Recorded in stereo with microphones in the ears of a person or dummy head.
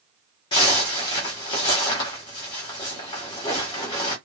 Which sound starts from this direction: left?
A zipper, at 0.5 s.